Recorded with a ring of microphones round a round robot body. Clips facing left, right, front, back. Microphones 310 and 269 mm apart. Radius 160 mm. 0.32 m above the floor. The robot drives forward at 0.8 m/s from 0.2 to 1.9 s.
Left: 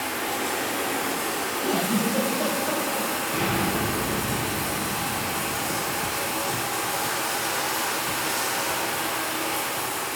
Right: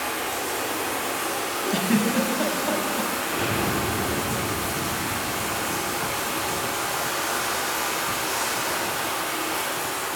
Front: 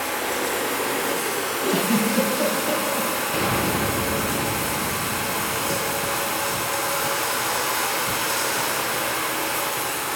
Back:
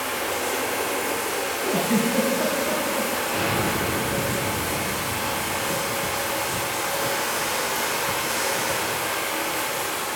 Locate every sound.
0.0 s running water: 5° left, 4 m; by 10.2 s 10° left, 2.5 m
1.7 s a giggle: 40° right, 1.3 m; by 3.1 s 45° right, 1.2 m
3.3 s an explosion: 25° left, 3 m